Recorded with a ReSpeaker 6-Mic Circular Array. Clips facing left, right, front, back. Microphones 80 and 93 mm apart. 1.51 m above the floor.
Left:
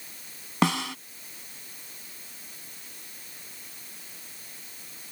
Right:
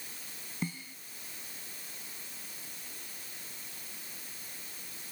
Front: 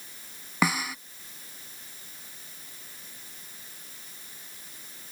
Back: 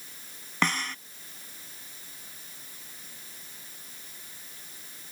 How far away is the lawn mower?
No lawn mower in this recording.